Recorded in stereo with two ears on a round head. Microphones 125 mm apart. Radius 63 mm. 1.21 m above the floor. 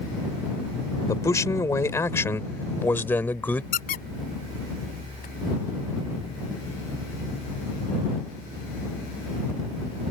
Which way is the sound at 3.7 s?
70° left (ahead or behind).